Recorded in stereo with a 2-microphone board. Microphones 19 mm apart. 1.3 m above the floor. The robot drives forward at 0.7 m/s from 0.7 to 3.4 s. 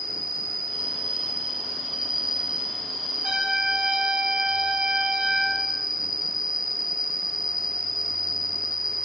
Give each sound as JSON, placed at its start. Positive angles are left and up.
{"t": 0.0, "sound": "an insect", "side_deg": -40, "distance_m": 1.4}
{"t": 3.2, "sound": "a trumpet", "side_deg": -70, "distance_m": 3.0}